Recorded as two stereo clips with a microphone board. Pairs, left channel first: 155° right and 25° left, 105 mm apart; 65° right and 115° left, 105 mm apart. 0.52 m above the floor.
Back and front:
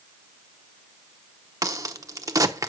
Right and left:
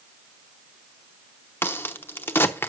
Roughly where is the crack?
Ahead.